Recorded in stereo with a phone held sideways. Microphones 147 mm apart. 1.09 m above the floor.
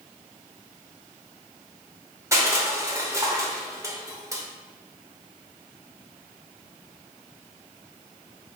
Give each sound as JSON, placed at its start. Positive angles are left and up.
{"t": 2.3, "sound": "crushing", "side_deg": -20, "distance_m": 0.7}